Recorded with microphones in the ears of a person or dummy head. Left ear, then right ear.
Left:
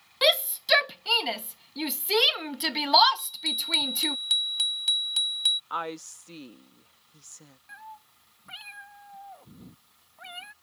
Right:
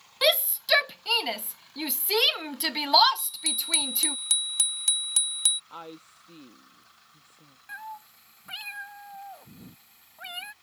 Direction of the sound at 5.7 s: 55° left (ahead or behind).